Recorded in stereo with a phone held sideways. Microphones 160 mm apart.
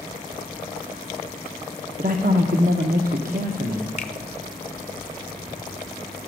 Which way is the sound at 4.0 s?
45° left (ahead or behind).